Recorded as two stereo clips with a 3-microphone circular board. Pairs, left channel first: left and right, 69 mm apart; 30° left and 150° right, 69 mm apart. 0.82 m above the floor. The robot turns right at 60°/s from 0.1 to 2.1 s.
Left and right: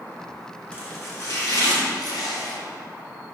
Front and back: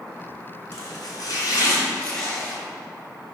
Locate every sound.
0.7 s chopping: 20° left, 2.5 m; by 2.6 s 105° left, 2.5 m